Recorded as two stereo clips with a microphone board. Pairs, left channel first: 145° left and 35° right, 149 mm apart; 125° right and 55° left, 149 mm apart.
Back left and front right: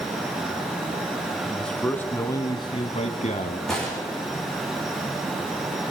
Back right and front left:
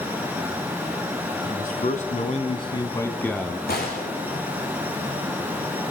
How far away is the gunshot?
About 7 m.